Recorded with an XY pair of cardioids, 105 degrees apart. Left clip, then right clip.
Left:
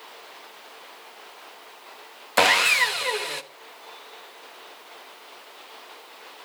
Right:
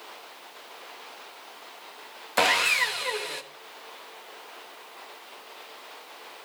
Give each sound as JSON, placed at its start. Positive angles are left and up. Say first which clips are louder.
{"t": 2.4, "sound": "sawing", "louder": "left 4 dB", "azimuth_deg": 30, "distance_m": 1.0}